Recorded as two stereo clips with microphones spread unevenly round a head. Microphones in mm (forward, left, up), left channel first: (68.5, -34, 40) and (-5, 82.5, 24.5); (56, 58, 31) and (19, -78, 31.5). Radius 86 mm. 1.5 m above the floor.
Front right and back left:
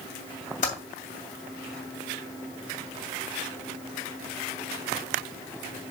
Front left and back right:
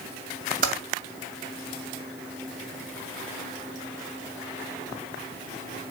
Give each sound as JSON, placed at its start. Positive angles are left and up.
{"t": 0.6, "sound": "typing on a keyboard", "azimuth_deg": -95, "distance_m": 2.5}